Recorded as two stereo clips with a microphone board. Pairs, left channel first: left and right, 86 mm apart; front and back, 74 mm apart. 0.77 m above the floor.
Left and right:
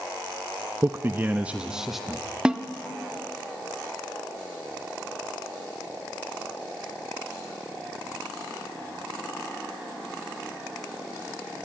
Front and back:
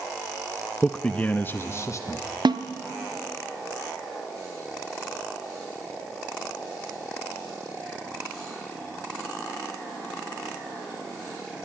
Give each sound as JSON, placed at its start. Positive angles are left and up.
{"t": 0.8, "sound": "a man speaking", "azimuth_deg": -80, "distance_m": 0.7}
{"t": 2.5, "sound": "a snare drum", "azimuth_deg": -170, "distance_m": 0.9}